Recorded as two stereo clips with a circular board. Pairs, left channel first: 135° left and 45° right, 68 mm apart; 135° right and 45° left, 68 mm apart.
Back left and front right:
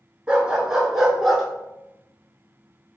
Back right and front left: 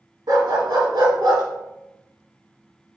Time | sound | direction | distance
0.3 | a dog barking | 25° left | 1.3 m